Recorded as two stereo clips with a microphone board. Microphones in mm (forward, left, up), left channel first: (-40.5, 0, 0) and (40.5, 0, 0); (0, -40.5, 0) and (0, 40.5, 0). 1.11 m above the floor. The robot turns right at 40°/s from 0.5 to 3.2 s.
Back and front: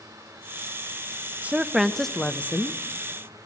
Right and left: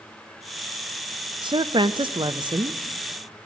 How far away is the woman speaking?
About 0.6 m.